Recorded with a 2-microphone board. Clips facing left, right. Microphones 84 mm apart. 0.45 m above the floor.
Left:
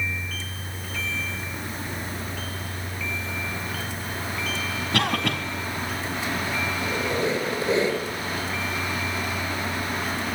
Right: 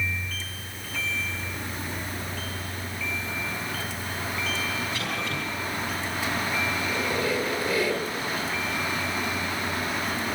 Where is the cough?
70° left (ahead or behind), 3.5 m.